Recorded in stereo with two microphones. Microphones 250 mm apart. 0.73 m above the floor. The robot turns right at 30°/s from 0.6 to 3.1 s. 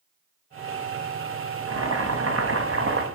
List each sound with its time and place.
1.7 s boiling: 105° right, 1.3 m; by 3.0 s 60° right, 1.3 m